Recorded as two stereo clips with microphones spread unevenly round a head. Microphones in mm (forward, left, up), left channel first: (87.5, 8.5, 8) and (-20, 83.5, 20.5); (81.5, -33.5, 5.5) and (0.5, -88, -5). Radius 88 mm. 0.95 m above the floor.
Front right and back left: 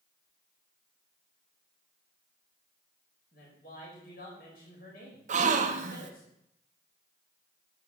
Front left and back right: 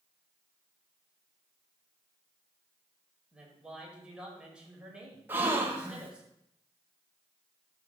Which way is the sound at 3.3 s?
65° right.